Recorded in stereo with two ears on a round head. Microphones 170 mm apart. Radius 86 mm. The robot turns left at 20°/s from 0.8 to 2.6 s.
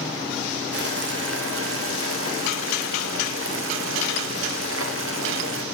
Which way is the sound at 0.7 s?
60° right.